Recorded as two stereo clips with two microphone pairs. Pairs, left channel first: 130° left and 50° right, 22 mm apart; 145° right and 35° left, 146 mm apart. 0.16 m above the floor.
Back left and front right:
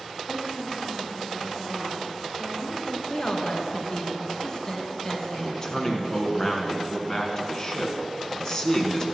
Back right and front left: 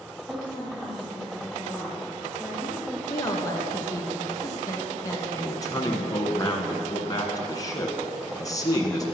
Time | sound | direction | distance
0.3 | a woman speaking | 90° left | 4 m
3.1 | a woman speaking | 165° left | 2 m
5.4 | a man speaking | 170° left | 1.6 m